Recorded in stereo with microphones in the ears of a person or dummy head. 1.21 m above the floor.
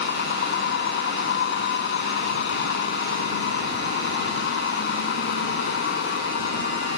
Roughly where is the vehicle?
Left.